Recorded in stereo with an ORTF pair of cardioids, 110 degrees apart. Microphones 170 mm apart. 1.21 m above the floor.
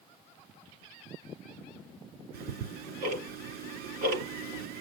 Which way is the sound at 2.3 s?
65° right.